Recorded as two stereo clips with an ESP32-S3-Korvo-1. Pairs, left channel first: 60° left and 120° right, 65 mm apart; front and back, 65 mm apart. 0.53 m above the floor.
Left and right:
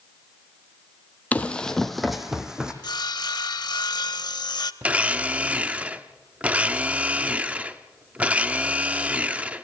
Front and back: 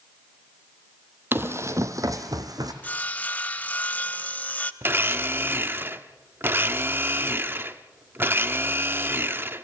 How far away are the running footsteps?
About 1.1 m.